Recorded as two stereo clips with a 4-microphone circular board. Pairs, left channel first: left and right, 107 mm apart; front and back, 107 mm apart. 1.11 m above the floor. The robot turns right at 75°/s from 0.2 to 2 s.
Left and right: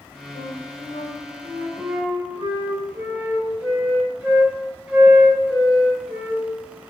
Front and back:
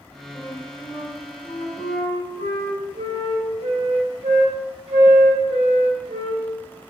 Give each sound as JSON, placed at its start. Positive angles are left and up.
{"t": 0.3, "sound": "a flute", "azimuth_deg": 65, "distance_m": 3.5}